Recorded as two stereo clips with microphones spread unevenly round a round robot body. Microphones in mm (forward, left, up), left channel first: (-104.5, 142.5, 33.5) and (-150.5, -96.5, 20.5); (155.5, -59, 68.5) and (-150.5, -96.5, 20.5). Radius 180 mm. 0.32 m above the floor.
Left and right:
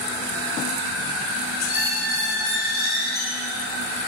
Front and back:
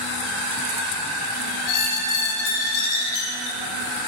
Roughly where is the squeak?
Ahead.